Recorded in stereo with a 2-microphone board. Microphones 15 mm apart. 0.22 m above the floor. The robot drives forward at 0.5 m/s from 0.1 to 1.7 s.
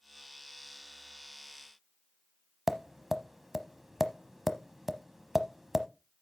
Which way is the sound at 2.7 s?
15° right (ahead or behind).